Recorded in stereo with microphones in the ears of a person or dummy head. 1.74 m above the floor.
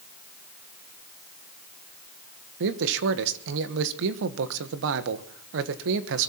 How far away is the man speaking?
About 1.2 m.